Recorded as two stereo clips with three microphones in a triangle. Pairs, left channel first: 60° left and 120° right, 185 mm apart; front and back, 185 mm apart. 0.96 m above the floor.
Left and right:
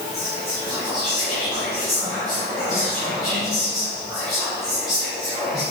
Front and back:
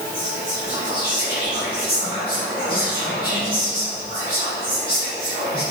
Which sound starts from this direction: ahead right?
Whispering, at 0.1 s.